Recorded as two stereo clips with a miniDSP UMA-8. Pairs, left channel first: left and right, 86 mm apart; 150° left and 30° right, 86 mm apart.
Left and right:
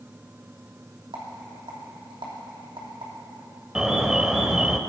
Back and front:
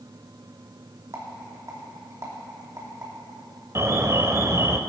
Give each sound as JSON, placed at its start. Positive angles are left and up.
{"t": 1.1, "sound": "a rattle", "azimuth_deg": -85, "distance_m": 3.0}
{"t": 3.8, "sound": "an alarm", "azimuth_deg": -15, "distance_m": 0.6}